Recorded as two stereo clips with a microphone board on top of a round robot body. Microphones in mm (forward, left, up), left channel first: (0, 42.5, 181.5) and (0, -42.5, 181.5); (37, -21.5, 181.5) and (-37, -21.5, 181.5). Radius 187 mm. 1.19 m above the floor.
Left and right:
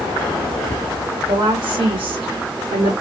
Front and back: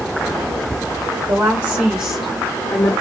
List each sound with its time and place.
1.3 s a woman speaking: 140° right, 0.8 m; by 2.9 s 55° right, 0.6 m